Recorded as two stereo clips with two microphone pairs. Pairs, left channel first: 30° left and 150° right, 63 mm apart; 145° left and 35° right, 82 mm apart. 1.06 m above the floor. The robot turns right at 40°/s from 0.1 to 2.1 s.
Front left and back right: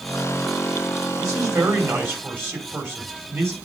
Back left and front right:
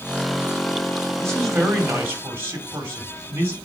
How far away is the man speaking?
About 2.5 m.